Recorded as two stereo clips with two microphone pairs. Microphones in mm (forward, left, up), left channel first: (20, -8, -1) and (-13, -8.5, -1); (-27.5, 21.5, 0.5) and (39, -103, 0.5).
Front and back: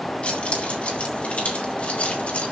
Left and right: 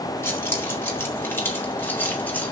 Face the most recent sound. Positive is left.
turn(degrees=40)